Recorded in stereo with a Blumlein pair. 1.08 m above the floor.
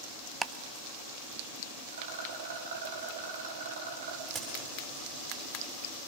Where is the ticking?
15° right, 0.6 m.